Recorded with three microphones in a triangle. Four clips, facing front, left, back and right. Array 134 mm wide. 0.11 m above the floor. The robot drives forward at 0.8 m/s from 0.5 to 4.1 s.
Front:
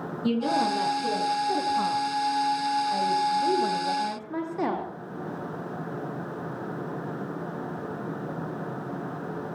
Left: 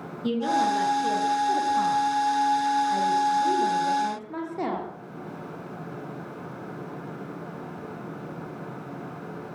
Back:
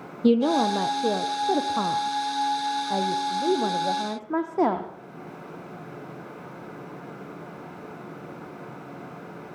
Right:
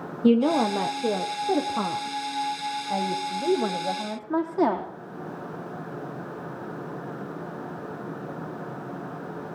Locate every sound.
0.2 s a woman speaking: 135° right, 3 m; by 4.9 s 160° right, 5.5 m